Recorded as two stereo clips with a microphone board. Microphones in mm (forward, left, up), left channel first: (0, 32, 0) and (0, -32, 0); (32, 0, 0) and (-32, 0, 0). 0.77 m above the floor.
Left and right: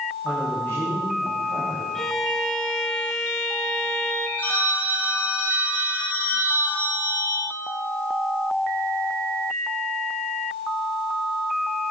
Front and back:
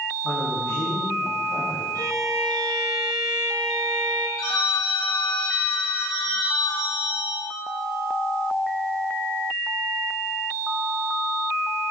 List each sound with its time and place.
0.2 s a man speaking: 35° left, 4 m
1.9 s a violin: 170° left, 1.7 m
4.4 s a phone ringing: 20° left, 4.5 m